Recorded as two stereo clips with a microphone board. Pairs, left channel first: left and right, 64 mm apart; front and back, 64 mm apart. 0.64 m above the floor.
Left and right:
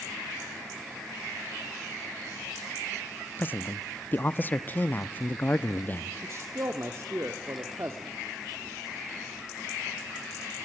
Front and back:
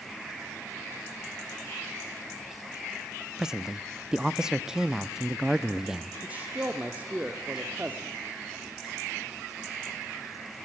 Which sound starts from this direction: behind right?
A man speaking, at 6.2 s.